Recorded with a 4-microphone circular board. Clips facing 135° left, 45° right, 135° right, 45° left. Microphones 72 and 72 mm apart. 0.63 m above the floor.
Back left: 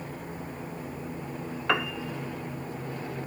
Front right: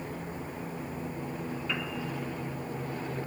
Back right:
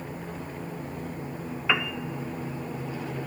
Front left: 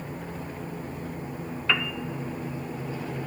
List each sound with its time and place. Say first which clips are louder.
1.7 s a piano: back left 11 dB, back right 1 dB; 145° left, 0.5 m